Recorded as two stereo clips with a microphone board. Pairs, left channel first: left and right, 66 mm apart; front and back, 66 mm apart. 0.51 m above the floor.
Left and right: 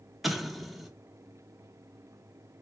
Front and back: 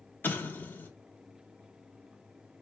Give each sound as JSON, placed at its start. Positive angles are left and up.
{"t": 0.2, "sound": "an explosion", "azimuth_deg": 0, "distance_m": 0.9}